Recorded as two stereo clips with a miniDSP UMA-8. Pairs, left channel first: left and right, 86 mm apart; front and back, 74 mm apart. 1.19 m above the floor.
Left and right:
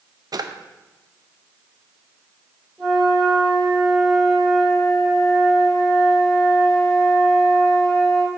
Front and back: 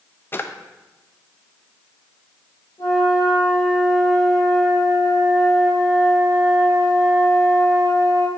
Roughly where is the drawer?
Ahead right.